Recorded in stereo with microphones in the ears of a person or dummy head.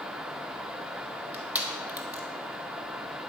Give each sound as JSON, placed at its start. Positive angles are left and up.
{"t": 1.3, "sound": "crushing", "side_deg": -10, "distance_m": 1.3}